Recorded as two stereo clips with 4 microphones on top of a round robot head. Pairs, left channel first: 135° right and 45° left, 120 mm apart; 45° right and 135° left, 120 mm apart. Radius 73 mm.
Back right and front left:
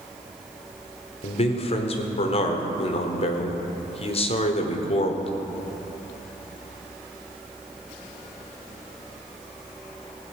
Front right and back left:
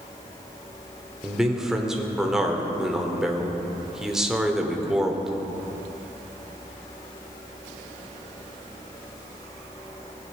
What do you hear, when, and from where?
1.2 s a man speaking: 140° right, 1.4 m